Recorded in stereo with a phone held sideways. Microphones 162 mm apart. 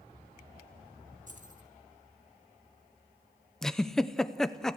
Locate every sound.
1.3 s keys jangling: 50° right (ahead or behind), 1.9 m
3.6 s a giggle: 5° left (ahead or behind), 0.7 m